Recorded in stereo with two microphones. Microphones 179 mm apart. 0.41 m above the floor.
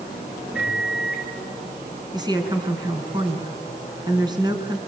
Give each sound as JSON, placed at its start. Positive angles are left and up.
{"t": 0.5, "sound": "a microwave", "side_deg": -5, "distance_m": 6.0}
{"t": 2.1, "sound": "a woman speaking", "side_deg": -25, "distance_m": 4.0}